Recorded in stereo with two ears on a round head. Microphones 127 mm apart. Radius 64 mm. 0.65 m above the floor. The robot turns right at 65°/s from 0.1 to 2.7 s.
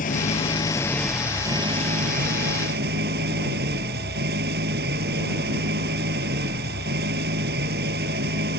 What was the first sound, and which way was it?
An engine running, 115° left.